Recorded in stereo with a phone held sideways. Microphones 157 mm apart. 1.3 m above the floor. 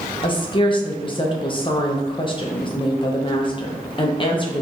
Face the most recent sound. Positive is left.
turn(degrees=30)  # may be behind; listen again after turning